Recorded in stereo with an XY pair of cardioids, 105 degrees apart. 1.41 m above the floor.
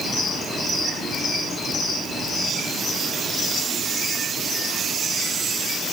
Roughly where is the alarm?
I don't hear an alarm.